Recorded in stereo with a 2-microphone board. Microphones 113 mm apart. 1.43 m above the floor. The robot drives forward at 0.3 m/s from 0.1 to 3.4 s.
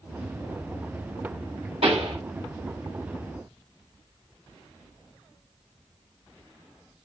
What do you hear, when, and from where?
1.8 s a pop: 65° right (ahead or behind), 3.5 m; by 2.2 s 60° right (ahead or behind), 3.5 m